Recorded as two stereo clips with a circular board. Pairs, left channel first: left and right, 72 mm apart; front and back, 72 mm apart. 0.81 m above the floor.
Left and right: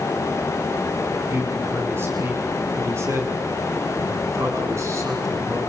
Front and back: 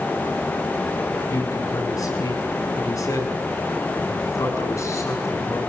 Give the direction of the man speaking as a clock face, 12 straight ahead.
1 o'clock.